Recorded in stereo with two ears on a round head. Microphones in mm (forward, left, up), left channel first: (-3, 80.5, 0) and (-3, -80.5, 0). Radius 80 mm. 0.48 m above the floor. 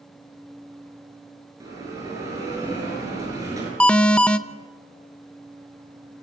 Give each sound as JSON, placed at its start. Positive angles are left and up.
{"t": 1.6, "sound": "a bell", "side_deg": -20, "distance_m": 6.5}
{"t": 3.8, "sound": "an alarm", "side_deg": 5, "distance_m": 0.6}